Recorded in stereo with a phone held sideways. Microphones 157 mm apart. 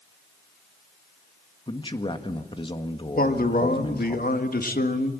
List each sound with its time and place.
1.7 s a man speaking: 30° left (ahead or behind), 1.7 m
3.2 s a man speaking: 65° left (ahead or behind), 1.8 m